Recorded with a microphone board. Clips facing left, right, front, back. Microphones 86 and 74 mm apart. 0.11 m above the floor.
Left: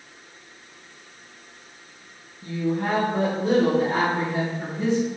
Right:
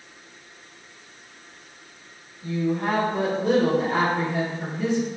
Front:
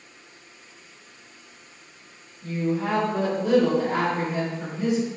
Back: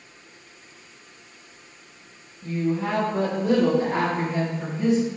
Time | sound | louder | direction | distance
2.4 | a woman speaking | right 1 dB, back 1 dB | 65° left | 2.0 m